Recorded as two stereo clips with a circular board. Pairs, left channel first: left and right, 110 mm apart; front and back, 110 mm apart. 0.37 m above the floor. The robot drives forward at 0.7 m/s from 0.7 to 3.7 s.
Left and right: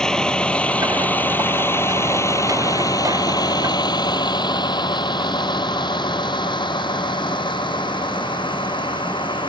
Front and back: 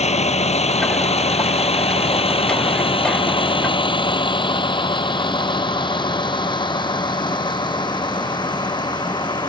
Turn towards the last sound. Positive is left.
turn(degrees=50)